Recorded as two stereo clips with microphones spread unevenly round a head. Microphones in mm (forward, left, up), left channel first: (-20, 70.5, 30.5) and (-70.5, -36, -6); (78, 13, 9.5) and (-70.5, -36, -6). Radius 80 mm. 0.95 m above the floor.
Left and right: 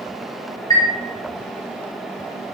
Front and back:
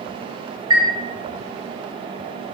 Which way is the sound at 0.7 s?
130° left.